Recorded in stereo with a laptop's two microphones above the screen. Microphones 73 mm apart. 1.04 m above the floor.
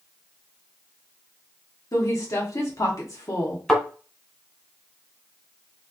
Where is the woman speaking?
50° left (ahead or behind), 1.0 m.